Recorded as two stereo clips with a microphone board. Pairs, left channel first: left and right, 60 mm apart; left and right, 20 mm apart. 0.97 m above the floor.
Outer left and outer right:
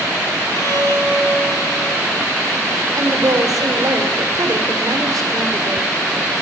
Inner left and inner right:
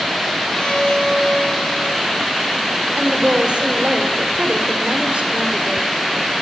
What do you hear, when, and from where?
0.5 s a violin: 50° left (ahead or behind), 7 m
3.0 s a woman speaking: 75° right (ahead or behind), 3.5 m